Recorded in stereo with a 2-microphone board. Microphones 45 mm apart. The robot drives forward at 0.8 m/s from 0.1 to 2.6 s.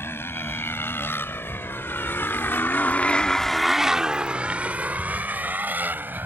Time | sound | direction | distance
0.0 | a motorcycle | 65° left (ahead or behind) | ?